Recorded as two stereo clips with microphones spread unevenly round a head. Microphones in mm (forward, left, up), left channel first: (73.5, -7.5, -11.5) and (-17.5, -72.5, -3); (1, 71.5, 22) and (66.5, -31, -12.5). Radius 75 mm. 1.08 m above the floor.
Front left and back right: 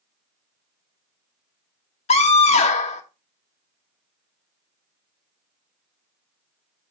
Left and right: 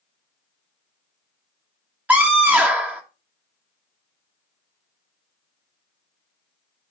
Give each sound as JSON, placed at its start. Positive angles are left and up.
{"t": 2.1, "sound": "a scream", "azimuth_deg": 15, "distance_m": 1.5}